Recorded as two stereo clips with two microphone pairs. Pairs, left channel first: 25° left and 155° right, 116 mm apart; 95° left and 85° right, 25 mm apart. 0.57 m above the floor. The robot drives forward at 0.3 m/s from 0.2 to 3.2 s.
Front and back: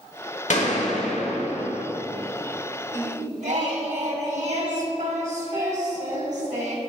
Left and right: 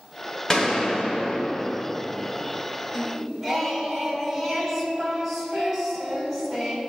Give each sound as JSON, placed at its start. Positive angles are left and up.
{"t": 0.5, "sound": "a gunshot", "azimuth_deg": 30, "distance_m": 1.1}
{"t": 2.9, "sound": "singing", "azimuth_deg": -175, "distance_m": 0.9}